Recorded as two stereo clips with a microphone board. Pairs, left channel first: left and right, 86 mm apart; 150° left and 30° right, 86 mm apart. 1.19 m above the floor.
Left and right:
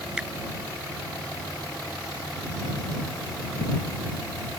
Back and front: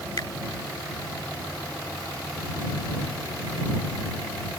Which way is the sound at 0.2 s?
170° right.